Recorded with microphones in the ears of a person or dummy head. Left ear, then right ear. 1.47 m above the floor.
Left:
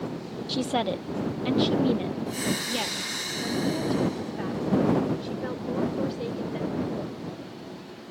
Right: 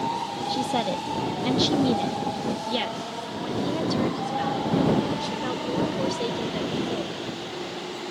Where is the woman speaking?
15° left (ahead or behind); by 7.2 s 35° right (ahead or behind).